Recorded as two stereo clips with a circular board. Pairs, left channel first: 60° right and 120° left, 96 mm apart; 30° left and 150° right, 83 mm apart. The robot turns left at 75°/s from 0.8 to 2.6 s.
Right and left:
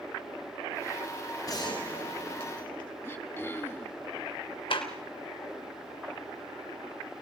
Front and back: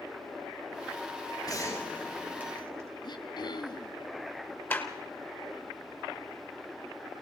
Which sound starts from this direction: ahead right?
A clap, at 4.7 s.